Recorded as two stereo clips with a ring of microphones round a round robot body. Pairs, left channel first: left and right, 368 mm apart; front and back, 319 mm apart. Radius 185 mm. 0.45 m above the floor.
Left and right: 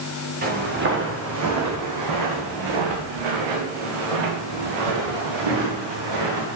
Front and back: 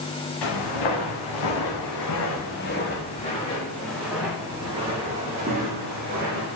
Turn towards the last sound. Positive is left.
turn(degrees=-115)